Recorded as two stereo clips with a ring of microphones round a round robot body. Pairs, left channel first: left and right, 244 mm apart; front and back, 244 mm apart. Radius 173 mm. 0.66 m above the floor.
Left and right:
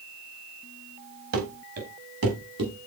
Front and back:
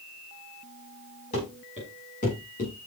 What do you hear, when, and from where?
1.3 s running footsteps: 75° right, 5 m; by 2.9 s 70° right, 6.5 m